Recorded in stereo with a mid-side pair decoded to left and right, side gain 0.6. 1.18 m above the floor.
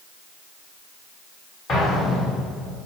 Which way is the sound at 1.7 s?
40° left.